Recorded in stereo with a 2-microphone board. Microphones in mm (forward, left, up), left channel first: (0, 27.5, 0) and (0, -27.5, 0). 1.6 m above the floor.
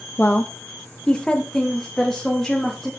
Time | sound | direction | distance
0.2 | a woman speaking | 35° left (ahead or behind) | 0.9 m